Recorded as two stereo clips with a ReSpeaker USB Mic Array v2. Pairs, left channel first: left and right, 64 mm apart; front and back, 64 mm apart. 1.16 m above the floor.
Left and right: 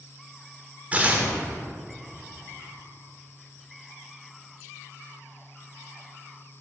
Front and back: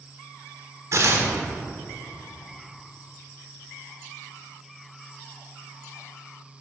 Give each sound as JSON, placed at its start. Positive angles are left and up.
{"t": 0.9, "sound": "tearing paper", "azimuth_deg": -155, "distance_m": 1.4}